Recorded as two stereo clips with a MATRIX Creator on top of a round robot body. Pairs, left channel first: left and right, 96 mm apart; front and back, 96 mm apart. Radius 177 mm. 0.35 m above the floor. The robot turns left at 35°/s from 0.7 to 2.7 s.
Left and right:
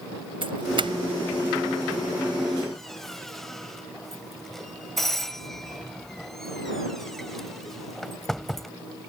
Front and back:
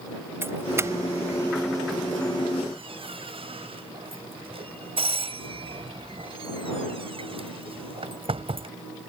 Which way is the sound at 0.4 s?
115° right.